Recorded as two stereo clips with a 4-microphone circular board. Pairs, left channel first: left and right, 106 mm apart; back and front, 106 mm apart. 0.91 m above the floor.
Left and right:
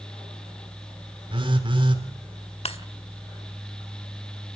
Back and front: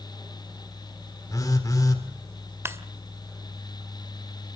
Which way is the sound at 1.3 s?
125° right.